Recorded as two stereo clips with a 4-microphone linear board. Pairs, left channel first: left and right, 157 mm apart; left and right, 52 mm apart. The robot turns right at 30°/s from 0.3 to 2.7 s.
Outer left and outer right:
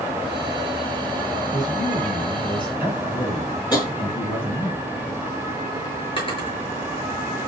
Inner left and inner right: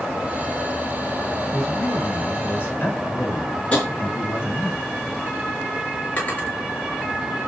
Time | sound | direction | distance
1.5 | a man speaking | straight ahead | 6 m
3.7 | tapping | 25° left (ahead or behind) | 5.5 m
6.2 | a drawer | 35° left (ahead or behind) | 5.5 m